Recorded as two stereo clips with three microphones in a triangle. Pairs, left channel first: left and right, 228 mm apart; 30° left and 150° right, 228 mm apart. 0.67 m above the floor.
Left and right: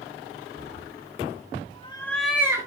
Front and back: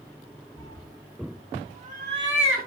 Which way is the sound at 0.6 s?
95° left.